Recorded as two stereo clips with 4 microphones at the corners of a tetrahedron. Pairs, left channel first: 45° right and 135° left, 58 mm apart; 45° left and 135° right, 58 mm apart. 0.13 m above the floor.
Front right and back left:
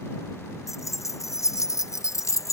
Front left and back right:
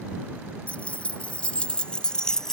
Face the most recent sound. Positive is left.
turn(degrees=-35)